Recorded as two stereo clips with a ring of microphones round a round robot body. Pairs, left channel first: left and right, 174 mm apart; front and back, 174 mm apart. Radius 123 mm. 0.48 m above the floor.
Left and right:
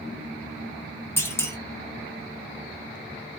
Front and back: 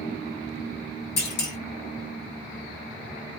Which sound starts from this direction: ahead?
A clunk, at 1.2 s.